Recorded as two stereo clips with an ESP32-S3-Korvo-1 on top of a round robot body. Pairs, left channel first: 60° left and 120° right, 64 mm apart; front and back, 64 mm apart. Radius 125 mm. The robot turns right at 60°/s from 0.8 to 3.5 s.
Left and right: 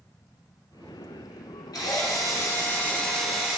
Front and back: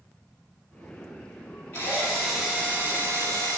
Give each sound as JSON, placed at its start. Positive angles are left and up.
{"t": 1.7, "sound": "a drill", "azimuth_deg": 60, "distance_m": 10.0}